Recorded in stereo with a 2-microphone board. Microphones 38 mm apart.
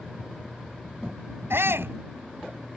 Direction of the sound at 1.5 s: 80° right.